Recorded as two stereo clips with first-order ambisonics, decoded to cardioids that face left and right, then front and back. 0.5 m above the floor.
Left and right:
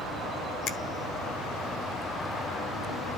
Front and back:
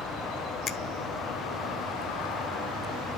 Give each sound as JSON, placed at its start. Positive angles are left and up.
{"t": 0.7, "sound": "a finger snap", "azimuth_deg": 55, "distance_m": 0.9}